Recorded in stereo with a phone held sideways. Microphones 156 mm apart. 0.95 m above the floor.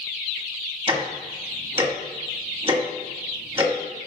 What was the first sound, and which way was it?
Ticking, 30° right (ahead or behind).